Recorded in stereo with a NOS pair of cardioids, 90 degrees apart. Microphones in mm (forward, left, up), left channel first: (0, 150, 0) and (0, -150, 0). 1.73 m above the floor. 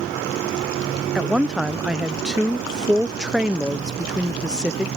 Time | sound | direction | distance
1.1 | a woman speaking | straight ahead | ?